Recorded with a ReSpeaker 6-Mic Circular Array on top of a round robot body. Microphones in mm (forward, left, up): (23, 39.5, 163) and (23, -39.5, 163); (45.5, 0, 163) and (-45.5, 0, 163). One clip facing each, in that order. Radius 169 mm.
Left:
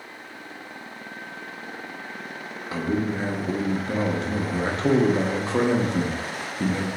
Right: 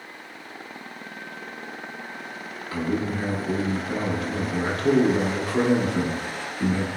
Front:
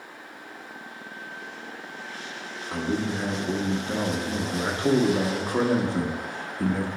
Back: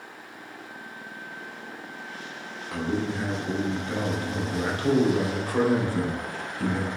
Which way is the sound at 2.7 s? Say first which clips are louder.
Left 1 dB, front 1 dB; 45° left.